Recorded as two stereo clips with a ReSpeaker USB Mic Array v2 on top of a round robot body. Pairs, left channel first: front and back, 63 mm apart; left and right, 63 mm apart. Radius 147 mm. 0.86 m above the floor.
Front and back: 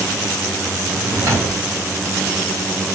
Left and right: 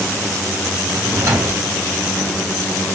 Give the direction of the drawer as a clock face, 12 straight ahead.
5 o'clock.